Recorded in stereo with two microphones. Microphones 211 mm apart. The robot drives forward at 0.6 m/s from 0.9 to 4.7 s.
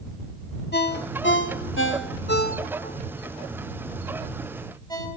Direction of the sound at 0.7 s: 50° left (ahead or behind).